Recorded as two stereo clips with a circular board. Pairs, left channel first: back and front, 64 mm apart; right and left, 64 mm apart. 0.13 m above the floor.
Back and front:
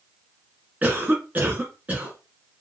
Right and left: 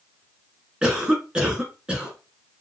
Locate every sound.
0.8 s a cough: 30° left, 1.7 m